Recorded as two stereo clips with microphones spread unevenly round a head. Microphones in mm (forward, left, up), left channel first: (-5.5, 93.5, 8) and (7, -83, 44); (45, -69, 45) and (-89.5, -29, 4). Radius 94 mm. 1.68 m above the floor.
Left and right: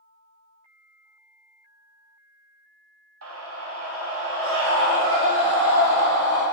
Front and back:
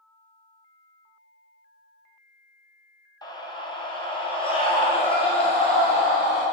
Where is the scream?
80° right, 1.6 m; by 6.4 s 65° right, 4 m.